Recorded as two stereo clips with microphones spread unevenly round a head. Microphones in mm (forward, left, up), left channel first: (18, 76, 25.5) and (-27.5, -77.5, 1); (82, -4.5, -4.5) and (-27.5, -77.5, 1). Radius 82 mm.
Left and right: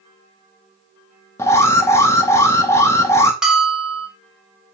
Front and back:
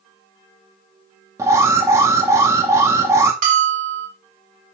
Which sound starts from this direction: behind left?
An alarm, at 1.4 s.